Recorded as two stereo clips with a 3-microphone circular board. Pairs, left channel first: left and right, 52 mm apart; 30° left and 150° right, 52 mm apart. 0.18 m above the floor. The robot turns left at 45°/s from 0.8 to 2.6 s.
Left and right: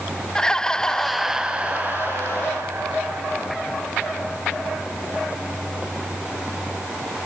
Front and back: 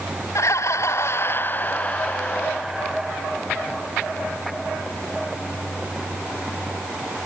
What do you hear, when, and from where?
0.3 s laughter: 15° left; by 3.2 s 70° right